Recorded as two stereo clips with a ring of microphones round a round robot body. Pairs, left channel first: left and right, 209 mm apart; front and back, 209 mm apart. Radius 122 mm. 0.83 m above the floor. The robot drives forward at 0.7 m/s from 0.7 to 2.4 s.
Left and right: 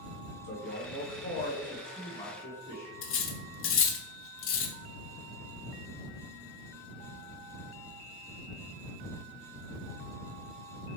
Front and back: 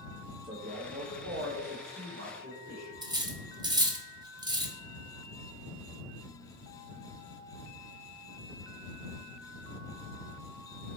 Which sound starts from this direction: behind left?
A man speaking, at 0.4 s.